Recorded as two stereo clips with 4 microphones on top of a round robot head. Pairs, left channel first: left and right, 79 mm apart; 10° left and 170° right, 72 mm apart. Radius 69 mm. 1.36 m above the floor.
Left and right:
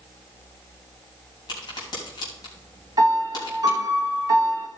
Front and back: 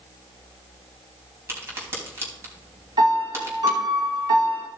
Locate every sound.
1.5 s a crack: 140° left, 3 m
3.0 s a piano: 140° right, 1.9 m